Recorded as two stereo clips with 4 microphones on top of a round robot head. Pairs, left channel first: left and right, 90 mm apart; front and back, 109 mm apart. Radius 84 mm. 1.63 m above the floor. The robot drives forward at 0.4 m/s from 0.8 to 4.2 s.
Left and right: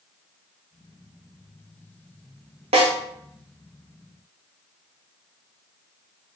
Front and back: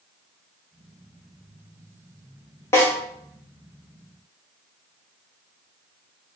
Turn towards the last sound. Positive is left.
turn(degrees=-110)